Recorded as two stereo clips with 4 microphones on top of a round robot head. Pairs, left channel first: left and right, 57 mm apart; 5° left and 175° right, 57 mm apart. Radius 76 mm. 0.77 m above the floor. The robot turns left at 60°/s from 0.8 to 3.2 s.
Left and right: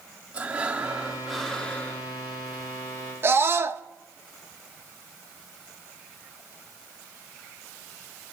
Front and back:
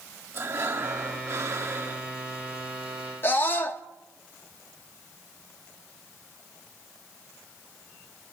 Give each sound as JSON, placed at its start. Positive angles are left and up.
{"t": 0.3, "sound": "breathing", "azimuth_deg": -150, "distance_m": 1.8}
{"t": 3.2, "sound": "a scream", "azimuth_deg": -45, "distance_m": 1.5}